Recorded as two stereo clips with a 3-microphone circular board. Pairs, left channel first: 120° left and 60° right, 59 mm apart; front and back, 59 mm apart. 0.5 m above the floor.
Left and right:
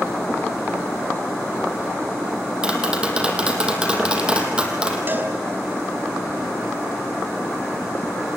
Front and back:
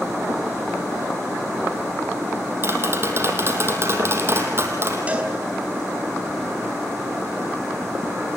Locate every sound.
2.6 s tapping: 135° right, 3.5 m
5.1 s a cowbell: 115° right, 4 m